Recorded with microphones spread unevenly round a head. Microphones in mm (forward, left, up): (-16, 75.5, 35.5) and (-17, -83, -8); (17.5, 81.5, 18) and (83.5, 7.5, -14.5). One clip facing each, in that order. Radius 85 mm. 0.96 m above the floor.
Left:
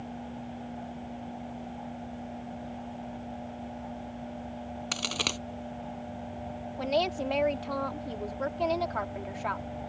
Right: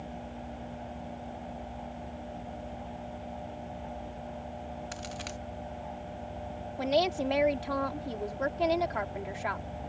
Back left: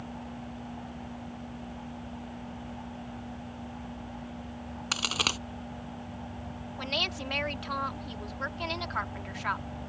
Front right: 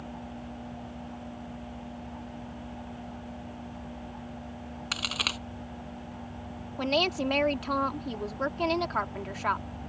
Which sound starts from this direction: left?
A crack, at 4.9 s.